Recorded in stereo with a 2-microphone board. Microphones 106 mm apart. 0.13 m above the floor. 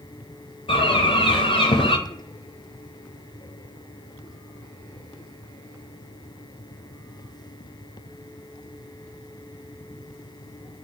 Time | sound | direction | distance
0.7 | a bird | 70° left (ahead or behind) | 0.7 m